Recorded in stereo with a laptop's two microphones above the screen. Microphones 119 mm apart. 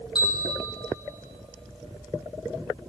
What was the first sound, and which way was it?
A bell, 35° left (ahead or behind).